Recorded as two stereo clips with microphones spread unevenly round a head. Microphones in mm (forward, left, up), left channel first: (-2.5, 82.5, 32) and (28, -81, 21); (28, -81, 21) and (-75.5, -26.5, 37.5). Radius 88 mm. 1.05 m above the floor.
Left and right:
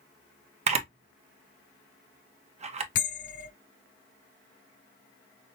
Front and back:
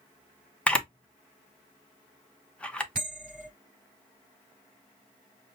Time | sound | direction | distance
0.7 | a camera shutter | 95° right | 0.7 m
3.0 | a bell | 65° left | 3.5 m